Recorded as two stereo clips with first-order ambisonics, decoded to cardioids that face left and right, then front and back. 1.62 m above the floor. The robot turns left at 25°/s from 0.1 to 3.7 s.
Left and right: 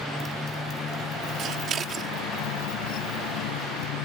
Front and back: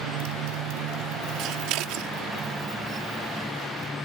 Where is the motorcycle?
175° left; by 4.0 s 85° left.